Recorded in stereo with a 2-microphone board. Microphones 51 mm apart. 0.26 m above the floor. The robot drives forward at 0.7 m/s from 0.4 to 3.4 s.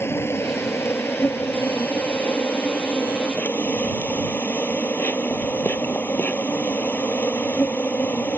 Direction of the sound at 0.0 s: 60° left (ahead or behind).